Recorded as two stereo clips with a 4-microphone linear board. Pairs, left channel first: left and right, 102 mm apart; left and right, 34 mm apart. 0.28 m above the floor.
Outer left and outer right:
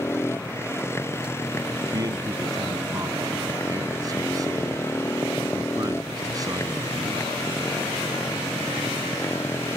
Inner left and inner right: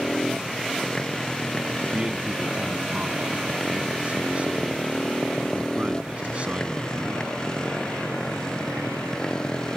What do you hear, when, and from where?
0.0 s a motorcycle: 25° left (ahead or behind)
1.9 s a man speaking: 40° right (ahead or behind)